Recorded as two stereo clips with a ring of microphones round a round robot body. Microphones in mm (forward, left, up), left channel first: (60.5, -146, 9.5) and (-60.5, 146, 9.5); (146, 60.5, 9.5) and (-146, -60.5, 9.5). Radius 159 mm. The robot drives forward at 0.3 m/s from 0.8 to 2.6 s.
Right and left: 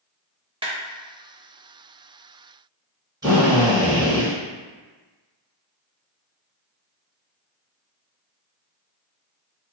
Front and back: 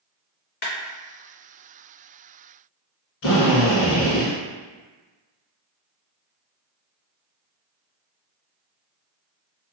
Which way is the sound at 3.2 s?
40° left.